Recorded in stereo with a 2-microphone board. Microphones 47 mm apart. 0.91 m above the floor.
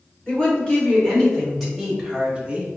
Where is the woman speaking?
20° left (ahead or behind), 1.9 m; by 2.7 s 25° right (ahead or behind), 1.2 m.